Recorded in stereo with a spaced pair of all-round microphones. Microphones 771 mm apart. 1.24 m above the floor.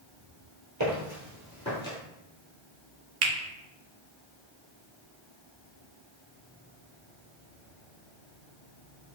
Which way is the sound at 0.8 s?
25° right (ahead or behind).